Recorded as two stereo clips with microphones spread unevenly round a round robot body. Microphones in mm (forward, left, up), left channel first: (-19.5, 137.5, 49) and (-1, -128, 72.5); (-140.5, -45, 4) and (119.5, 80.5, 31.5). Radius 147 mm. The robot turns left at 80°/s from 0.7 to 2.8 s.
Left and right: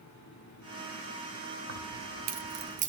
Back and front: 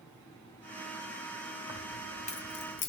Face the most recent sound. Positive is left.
turn(degrees=-145)